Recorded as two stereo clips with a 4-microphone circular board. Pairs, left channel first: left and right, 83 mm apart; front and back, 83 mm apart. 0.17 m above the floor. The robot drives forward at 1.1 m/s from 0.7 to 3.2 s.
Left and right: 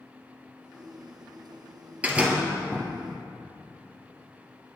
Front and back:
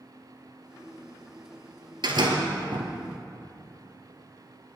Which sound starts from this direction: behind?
A door slam, at 2.0 s.